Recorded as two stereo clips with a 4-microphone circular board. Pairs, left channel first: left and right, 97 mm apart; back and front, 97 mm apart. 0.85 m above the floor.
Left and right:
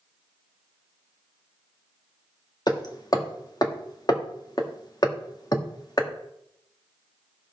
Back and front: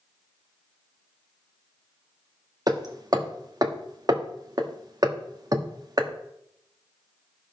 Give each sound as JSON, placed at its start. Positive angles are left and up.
{"t": 2.7, "sound": "hammering", "azimuth_deg": 45, "distance_m": 1.2}